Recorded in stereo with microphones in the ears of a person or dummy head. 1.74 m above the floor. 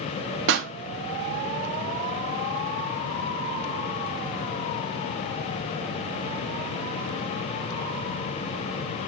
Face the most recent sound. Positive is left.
turn(degrees=-75)  # may be behind; listen again after turning